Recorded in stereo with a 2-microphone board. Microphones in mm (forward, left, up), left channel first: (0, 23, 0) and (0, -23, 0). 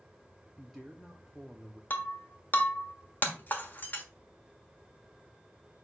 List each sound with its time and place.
0.6 s a man speaking: centre (ahead or behind), 0.7 m
1.9 s breaking glass: 40° left (ahead or behind), 1.2 m